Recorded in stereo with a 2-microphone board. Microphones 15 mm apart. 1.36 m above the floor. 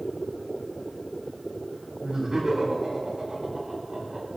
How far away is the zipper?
I don't hear a zipper.